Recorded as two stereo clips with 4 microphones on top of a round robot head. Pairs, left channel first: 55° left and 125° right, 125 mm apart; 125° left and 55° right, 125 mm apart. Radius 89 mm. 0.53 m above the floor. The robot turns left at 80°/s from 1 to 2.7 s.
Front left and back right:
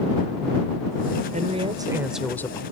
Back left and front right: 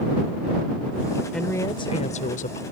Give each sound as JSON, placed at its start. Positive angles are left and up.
{"t": 1.3, "sound": "a woman speaking", "azimuth_deg": -145}